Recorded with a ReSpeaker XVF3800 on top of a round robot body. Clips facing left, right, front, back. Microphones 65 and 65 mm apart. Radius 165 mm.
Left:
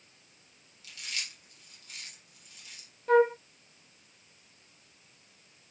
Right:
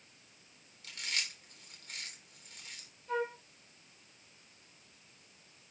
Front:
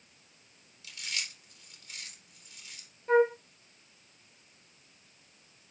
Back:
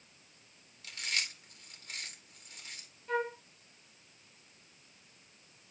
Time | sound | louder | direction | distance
0.8 | chewing | right 1 dB, back 2 dB | 140° right | 3.5 m
3.1 | a flute | left 13 dB, front 10 dB | 60° left | 0.7 m